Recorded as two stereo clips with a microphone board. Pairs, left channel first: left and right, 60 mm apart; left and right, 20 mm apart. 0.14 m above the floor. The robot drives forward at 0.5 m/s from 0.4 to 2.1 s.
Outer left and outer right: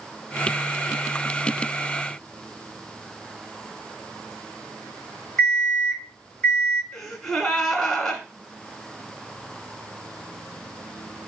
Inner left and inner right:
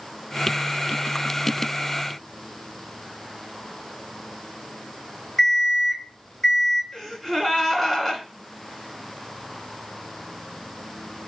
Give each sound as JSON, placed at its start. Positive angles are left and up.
{"t": 5.4, "sound": "an alarm clock", "side_deg": 10, "distance_m": 2.0}
{"t": 6.9, "sound": "a gasp", "side_deg": 10, "distance_m": 1.2}